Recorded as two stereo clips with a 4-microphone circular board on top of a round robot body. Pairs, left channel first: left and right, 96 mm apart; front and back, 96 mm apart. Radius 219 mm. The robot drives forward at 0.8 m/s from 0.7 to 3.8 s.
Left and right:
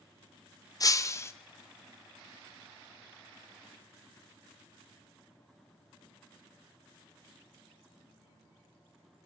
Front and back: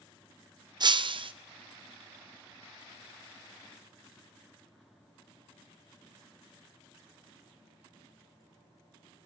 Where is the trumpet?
No trumpet in this recording.